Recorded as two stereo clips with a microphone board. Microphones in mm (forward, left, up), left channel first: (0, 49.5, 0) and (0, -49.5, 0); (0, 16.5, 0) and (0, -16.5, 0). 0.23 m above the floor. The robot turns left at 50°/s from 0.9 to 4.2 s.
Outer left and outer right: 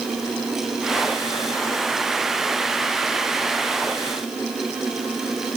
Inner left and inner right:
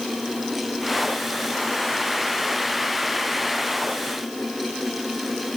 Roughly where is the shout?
No shout in this recording.